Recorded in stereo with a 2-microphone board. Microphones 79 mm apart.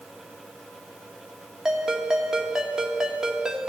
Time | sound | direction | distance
1.6 | a ringtone | 5° right (ahead or behind) | 1.3 m